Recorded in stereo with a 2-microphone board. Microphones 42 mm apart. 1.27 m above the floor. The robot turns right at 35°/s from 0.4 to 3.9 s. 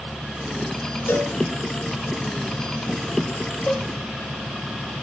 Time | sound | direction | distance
1.1 | a cowbell | 75° left (ahead or behind) | 7 m
3.7 | a cowbell | 25° left (ahead or behind) | 7 m